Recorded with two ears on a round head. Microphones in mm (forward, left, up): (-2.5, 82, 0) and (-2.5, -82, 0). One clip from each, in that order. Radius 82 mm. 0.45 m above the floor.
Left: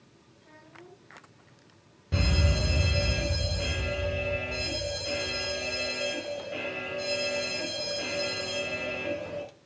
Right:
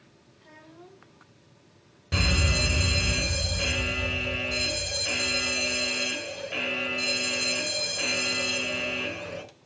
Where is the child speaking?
45° right (ahead or behind), 3.5 m.